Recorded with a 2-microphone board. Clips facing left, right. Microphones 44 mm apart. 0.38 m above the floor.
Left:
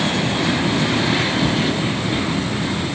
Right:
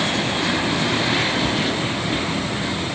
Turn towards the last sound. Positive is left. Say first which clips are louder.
# left 2 dB
turn(degrees=-25)  # may be behind; listen again after turning